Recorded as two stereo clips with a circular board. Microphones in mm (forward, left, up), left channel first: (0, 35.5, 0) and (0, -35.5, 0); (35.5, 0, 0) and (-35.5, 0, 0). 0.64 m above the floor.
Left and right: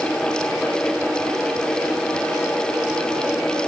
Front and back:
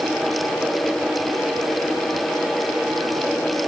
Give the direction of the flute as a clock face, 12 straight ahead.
I don't hear a flute.